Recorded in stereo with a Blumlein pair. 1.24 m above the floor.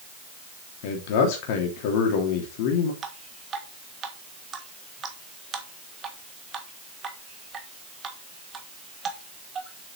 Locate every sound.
0.8 s a man speaking: 45° left, 3 m
3.0 s dripping: 25° right, 1.5 m